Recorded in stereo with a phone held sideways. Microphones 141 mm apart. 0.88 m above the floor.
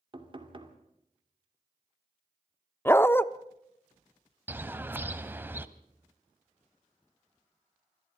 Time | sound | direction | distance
0.1 | knocking | 35° right (ahead or behind) | 2 m
2.9 | a dog barking | 15° left (ahead or behind) | 0.6 m
4.5 | a bird | 15° right (ahead or behind) | 0.9 m